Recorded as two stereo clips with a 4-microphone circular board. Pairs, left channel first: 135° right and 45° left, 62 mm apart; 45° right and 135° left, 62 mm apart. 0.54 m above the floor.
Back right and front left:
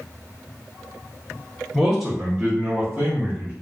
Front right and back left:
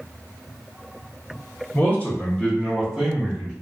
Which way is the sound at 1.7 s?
50° right.